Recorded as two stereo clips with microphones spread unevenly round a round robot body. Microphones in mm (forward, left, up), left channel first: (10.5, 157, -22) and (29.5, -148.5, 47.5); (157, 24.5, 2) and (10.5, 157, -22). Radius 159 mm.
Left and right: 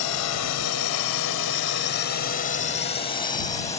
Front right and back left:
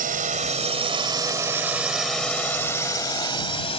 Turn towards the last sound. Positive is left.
turn(degrees=20)